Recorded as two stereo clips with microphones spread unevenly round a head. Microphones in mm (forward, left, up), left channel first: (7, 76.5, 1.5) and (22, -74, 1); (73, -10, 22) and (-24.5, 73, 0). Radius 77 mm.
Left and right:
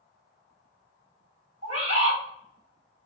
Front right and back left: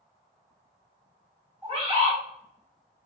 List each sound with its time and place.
1.6 s a bird: 140° right, 1.7 m